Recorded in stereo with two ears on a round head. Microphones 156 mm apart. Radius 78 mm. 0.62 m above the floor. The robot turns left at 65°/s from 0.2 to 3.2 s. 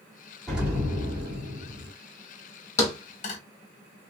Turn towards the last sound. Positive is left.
turn(degrees=45)  # may be behind; listen again after turning